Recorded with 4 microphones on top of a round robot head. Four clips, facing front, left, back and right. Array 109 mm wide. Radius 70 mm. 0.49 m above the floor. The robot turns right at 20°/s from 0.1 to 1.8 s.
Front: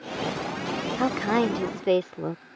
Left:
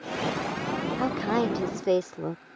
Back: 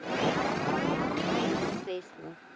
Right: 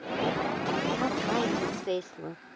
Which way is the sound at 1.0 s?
10° left.